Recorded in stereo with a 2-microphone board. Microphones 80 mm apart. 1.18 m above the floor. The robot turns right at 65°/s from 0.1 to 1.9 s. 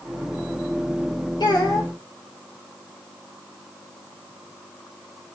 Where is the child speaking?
110° left, 2.0 m; by 1.9 s 140° left, 2.0 m.